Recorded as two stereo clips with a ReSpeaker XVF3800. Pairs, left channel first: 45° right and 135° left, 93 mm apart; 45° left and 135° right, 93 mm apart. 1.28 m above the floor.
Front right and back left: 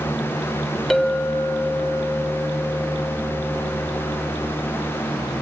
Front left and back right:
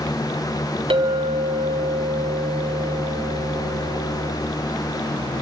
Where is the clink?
135° right, 1.8 m.